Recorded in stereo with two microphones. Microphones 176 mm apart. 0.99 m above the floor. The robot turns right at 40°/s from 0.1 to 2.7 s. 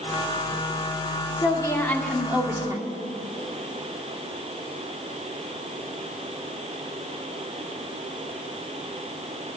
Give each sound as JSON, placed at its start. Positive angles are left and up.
{"t": 1.4, "sound": "a woman speaking", "azimuth_deg": 145, "distance_m": 1.9}